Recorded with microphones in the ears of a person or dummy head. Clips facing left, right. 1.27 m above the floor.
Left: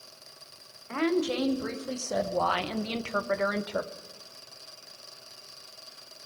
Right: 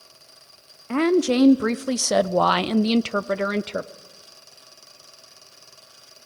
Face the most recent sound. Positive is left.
turn(degrees=-30)  # may be behind; listen again after turning